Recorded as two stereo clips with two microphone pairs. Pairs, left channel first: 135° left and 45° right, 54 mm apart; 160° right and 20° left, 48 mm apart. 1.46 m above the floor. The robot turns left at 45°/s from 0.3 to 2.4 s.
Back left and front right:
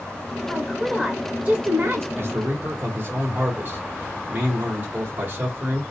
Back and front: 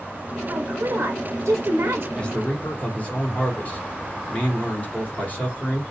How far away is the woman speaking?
About 0.5 m.